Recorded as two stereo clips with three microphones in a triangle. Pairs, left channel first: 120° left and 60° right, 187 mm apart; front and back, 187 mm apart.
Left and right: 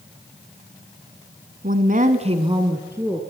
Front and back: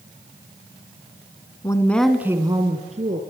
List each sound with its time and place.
1.6 s a woman speaking: 65° right, 1.8 m; by 3.2 s 140° right, 2.5 m